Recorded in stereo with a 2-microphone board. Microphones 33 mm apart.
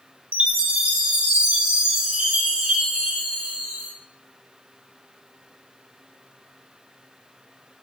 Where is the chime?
55° right (ahead or behind), 4.5 m.